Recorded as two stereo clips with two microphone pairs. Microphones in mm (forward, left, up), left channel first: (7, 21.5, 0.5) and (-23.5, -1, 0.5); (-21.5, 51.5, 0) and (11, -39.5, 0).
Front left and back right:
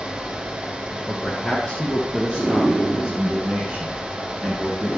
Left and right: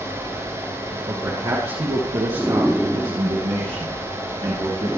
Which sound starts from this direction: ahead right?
A man speaking, at 1.1 s.